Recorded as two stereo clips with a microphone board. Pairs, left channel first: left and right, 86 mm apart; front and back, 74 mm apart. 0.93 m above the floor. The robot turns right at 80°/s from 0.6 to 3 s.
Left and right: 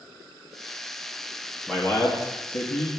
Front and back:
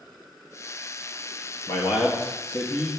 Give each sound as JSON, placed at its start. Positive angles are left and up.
{"t": 1.7, "sound": "a man speaking", "azimuth_deg": 0, "distance_m": 1.5}